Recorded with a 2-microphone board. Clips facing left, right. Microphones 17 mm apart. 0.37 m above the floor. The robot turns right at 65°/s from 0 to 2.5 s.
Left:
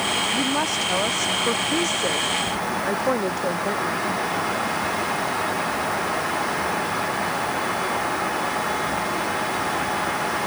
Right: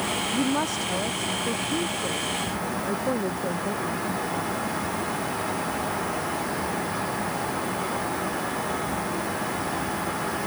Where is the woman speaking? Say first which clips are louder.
Left 3 dB; 5° right; by 4.1 s 140° left.